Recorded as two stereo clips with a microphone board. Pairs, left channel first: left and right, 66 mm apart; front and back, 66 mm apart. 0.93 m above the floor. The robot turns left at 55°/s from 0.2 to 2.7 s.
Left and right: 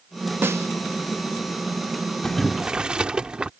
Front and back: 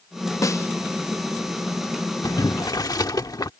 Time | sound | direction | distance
0.4 | a snare drum | 35° right | ?
2.2 | boiling | 10° left | ?